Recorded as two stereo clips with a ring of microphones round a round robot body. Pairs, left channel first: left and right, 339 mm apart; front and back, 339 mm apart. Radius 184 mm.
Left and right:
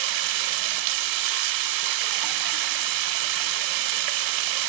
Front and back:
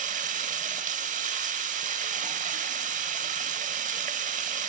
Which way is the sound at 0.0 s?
110° right.